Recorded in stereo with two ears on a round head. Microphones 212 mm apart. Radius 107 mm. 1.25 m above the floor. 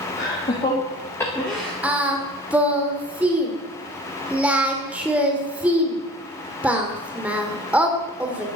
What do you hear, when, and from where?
0.2 s laughter: 30° left (ahead or behind), 3.5 m; by 1.7 s 10° right (ahead or behind), 1.7 m
1.8 s singing: 5° right (ahead or behind), 2 m